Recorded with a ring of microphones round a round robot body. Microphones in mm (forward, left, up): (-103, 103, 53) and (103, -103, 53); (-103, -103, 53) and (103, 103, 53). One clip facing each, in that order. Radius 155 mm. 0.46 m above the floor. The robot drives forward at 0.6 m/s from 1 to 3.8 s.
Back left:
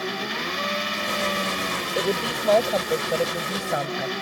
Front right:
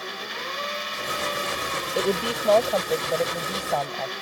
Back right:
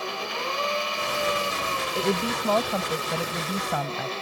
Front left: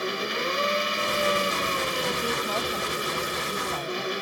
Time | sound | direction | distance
0.0 | an engine running | 115° left | ?
1.9 | a woman speaking | 130° right | ?